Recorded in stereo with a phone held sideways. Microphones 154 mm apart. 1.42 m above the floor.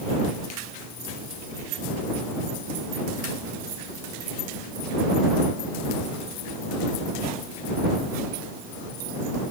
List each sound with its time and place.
Only background noise.